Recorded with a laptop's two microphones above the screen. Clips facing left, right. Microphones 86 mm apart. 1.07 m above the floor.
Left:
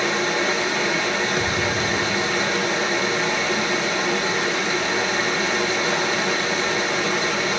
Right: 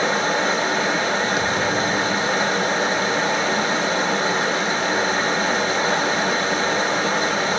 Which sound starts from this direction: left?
A thud, at 1.4 s.